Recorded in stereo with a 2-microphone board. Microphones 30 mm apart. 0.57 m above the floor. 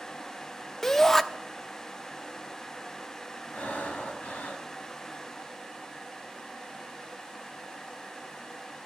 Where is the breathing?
65° left (ahead or behind), 2.5 m.